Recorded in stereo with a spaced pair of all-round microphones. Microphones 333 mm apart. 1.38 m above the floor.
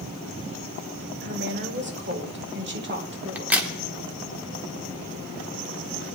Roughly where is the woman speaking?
Right.